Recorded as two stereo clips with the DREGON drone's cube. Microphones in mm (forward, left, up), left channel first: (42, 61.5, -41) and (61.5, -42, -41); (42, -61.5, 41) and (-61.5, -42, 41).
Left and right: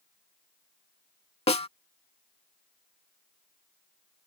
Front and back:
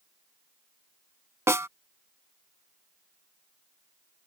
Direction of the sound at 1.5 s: 110° left.